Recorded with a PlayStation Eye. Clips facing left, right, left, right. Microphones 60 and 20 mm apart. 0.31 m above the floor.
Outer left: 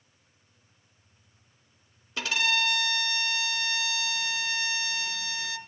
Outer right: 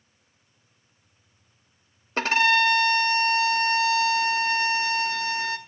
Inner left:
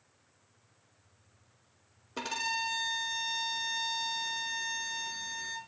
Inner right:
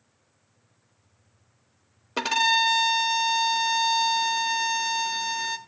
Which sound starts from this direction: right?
A violin, at 2.2 s.